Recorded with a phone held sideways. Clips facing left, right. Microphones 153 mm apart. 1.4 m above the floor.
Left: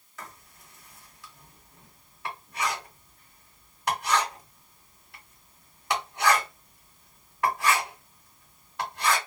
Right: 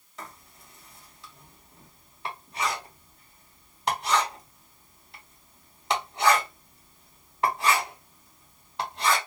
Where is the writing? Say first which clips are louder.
Right 2 dB; 25° right (ahead or behind), 1.2 m.